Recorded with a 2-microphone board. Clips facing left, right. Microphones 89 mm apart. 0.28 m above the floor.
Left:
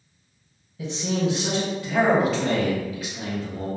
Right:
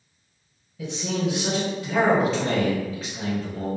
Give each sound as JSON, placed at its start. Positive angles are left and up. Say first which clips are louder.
{"t": 0.8, "sound": "a man speaking", "louder": "left 1 dB", "side_deg": 0, "distance_m": 1.5}